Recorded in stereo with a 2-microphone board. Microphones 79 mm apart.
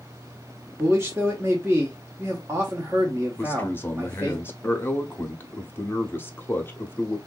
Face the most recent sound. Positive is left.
turn(degrees=25)  # may be behind; listen again after turning